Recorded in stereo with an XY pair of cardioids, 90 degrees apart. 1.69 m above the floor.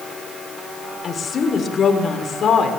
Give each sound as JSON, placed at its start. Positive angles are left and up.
{"t": 1.0, "sound": "a woman speaking", "azimuth_deg": 50, "distance_m": 6.5}